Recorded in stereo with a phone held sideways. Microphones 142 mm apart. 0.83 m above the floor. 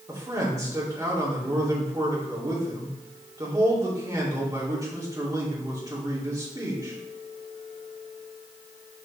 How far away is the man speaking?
About 2.5 m.